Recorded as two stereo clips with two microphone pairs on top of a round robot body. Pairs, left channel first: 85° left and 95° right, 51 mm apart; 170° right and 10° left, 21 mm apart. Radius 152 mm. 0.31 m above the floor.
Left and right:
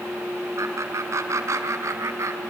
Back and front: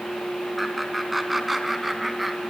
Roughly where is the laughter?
Right.